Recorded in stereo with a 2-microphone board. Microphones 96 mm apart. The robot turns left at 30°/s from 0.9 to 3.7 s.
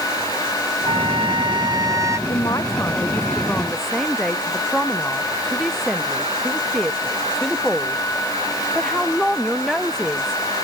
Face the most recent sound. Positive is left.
turn(degrees=5)